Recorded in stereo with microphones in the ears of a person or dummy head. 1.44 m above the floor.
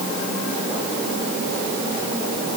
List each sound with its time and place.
Only background noise.